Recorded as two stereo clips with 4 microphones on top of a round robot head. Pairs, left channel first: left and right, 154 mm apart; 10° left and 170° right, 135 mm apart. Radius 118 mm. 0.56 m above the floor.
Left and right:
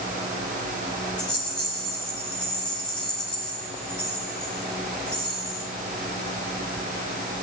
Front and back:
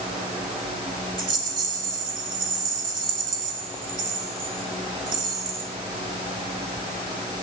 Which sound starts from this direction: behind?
A rattle, at 1.2 s.